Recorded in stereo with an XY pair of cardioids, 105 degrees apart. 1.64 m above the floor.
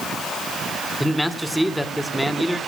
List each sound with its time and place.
1.0 s a man speaking: straight ahead, 2 m